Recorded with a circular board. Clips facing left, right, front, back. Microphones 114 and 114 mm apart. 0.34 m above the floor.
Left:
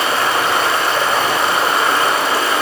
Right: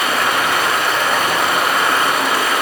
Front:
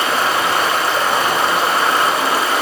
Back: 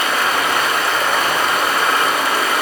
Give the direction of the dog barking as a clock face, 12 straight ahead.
I don't hear a dog barking.